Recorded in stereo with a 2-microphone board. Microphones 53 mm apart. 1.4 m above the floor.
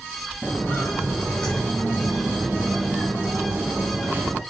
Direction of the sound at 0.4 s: 25° left (ahead or behind).